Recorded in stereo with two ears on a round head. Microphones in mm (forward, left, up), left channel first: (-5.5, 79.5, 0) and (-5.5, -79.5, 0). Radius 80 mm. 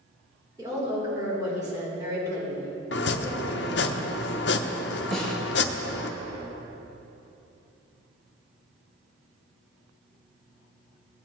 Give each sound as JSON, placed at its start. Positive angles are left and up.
{"t": 0.6, "sound": "a woman speaking", "side_deg": -20, "distance_m": 3.5}
{"t": 2.9, "sound": "chopping", "side_deg": 65, "distance_m": 0.6}
{"t": 5.1, "sound": "a snare drum", "side_deg": 5, "distance_m": 2.5}